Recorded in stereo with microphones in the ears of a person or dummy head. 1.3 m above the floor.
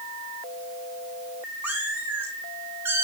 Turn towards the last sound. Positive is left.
turn(degrees=-15)  # may be behind; listen again after turning